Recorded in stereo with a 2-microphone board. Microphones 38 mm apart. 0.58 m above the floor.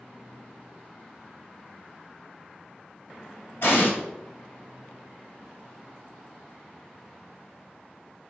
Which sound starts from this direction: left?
An explosion, at 3.6 s.